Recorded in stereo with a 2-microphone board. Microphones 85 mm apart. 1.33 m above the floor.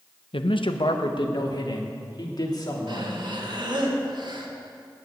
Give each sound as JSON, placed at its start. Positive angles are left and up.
{"t": 0.3, "sound": "a man speaking", "side_deg": 85, "distance_m": 0.9}
{"t": 2.9, "sound": "breathing", "side_deg": -55, "distance_m": 1.8}